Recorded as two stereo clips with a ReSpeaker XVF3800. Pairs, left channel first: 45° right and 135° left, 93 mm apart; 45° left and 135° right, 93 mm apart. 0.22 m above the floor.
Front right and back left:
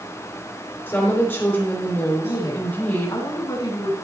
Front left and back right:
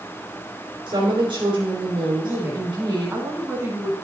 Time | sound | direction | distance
0.9 | a woman speaking | 110° right | 4 m
2.2 | a woman speaking | 75° right | 2.5 m